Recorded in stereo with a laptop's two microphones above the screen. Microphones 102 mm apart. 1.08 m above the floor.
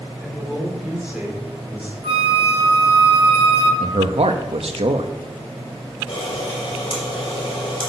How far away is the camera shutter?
About 3.5 m.